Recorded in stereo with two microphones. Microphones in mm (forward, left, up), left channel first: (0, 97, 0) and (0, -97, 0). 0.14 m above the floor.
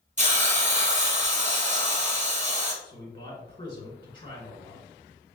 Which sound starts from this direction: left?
A man speaking, at 2.8 s.